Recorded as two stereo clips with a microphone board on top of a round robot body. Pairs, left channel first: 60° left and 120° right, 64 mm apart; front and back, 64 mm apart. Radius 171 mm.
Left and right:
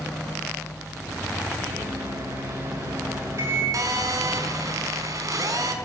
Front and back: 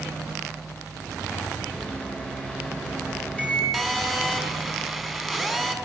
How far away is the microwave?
About 7.5 m.